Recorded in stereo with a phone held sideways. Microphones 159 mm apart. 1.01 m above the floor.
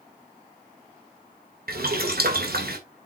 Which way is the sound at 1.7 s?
75° right (ahead or behind).